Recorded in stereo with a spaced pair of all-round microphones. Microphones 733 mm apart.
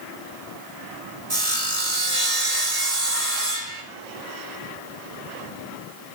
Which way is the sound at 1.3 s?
75° right (ahead or behind).